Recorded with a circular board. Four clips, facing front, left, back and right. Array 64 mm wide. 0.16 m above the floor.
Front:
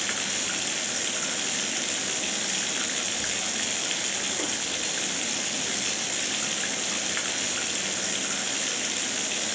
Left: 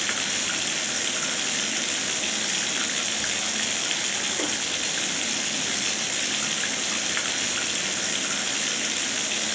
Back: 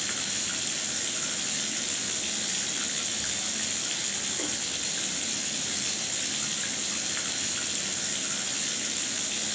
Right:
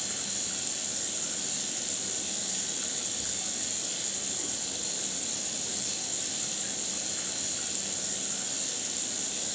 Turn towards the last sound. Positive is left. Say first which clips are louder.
# left 12 dB, front 4 dB
turn(degrees=75)